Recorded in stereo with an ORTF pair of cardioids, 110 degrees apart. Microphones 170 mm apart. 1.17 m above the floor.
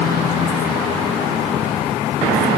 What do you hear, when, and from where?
Only background noise.